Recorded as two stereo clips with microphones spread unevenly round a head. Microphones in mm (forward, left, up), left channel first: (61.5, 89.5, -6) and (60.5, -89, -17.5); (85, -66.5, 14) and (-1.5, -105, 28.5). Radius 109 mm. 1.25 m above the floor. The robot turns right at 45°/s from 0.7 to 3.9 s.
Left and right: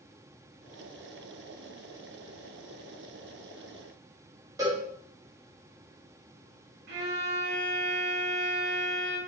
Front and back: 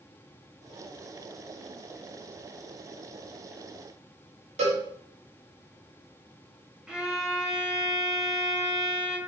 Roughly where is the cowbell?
Behind.